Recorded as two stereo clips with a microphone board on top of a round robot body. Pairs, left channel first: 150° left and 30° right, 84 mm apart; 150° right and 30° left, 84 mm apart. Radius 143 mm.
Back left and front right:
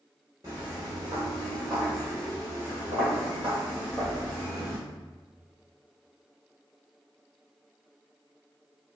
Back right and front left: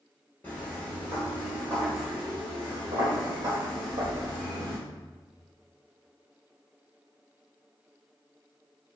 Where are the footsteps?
85° right, 1.0 m; by 4.8 s 75° left, 2.5 m.